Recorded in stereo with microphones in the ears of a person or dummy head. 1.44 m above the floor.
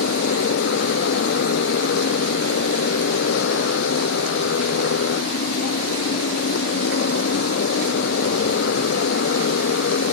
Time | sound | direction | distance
0.0 | a motorcycle | 65° left (ahead or behind) | ?